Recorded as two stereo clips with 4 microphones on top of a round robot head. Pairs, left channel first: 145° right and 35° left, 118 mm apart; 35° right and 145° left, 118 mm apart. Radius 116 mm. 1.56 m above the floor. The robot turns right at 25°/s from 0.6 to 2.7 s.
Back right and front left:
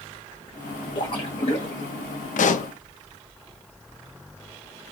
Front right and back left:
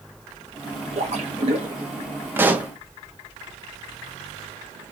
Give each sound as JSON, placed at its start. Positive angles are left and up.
{"t": 0.9, "sound": "a splash", "azimuth_deg": 170, "distance_m": 1.0}
{"t": 2.4, "sound": "a pop", "azimuth_deg": -145, "distance_m": 0.6}